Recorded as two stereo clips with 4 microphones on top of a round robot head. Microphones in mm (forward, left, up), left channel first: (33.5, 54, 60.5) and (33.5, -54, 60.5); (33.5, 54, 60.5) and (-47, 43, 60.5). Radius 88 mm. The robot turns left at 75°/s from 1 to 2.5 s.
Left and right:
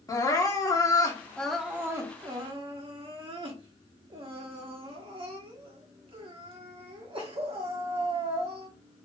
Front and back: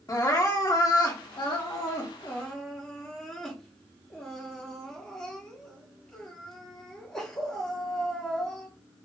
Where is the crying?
40° left, 1.0 m; by 8.7 s 75° right, 1.0 m.